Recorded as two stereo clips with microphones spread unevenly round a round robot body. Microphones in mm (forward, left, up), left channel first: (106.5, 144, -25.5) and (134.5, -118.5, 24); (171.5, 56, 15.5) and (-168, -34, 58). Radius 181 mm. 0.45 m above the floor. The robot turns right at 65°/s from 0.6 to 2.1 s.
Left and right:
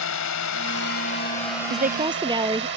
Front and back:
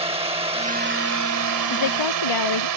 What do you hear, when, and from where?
0.0 s a drone: 120° left; by 2.8 s 145° right
1.7 s a woman speaking: 35° right; by 2.7 s 10° right